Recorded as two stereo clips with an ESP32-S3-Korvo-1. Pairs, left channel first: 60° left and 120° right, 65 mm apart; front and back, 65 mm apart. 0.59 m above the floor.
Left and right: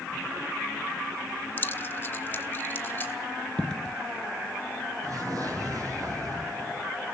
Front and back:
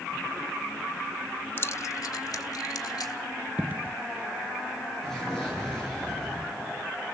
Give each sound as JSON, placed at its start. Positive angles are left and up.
{"t": 1.6, "sound": "keys jangling", "azimuth_deg": 25, "distance_m": 0.6}
{"t": 3.6, "sound": "a dropped coin", "azimuth_deg": 130, "distance_m": 0.7}
{"t": 5.0, "sound": "an explosion", "azimuth_deg": -85, "distance_m": 10.0}